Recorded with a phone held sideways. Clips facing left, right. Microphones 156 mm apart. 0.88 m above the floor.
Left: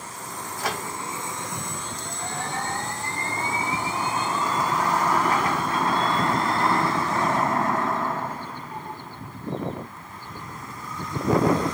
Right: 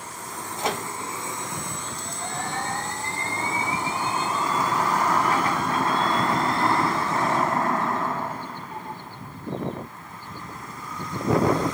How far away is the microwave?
About 0.6 m.